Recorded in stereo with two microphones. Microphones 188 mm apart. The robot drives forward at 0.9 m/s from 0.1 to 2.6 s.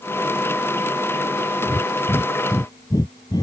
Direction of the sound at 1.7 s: 25° left (ahead or behind).